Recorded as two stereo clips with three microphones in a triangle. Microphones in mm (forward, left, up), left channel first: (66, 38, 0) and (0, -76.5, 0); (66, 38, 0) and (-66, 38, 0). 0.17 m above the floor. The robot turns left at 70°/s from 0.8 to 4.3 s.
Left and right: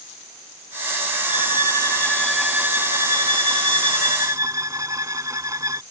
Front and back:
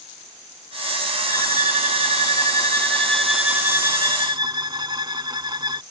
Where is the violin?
45° left; by 5.8 s 165° right.